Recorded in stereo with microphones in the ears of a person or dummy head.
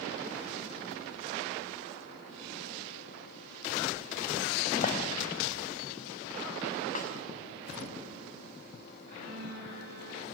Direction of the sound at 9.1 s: 55° right (ahead or behind).